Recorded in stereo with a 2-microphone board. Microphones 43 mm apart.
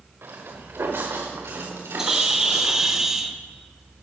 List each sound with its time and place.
0.2 s footsteps: 65° right (ahead or behind), 3.5 m; by 3.0 s 80° right, 5 m
2.0 s a bird: 10° right (ahead or behind), 1.1 m